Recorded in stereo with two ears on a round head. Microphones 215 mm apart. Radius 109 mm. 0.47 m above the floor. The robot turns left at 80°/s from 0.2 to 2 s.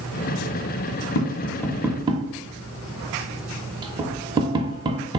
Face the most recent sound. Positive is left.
turn(degrees=-20)  # may be behind; listen again after turning